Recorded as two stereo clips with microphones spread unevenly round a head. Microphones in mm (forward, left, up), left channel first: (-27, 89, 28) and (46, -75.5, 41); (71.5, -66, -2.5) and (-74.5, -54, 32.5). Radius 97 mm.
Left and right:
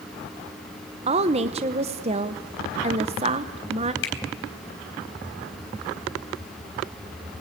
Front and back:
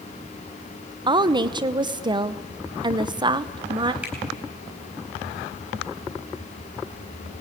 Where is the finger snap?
95° left, 4 m.